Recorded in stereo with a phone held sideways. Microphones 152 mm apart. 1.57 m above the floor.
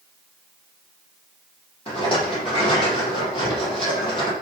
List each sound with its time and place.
1.9 s a rattle: 35° left (ahead or behind), 8.5 m